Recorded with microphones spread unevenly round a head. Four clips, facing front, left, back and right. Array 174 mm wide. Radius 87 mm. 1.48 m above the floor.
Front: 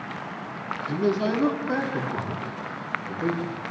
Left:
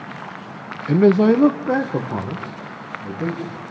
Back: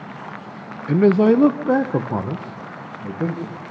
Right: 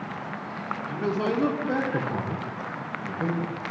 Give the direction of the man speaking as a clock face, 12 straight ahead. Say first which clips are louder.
Left 14 dB, back 10 dB; 8 o'clock.